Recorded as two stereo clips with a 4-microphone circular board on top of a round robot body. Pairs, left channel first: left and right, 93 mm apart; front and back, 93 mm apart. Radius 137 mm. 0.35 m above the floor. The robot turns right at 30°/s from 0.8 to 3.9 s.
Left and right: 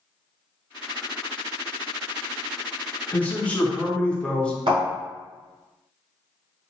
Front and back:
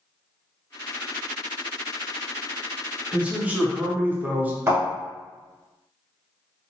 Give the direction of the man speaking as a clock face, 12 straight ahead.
8 o'clock.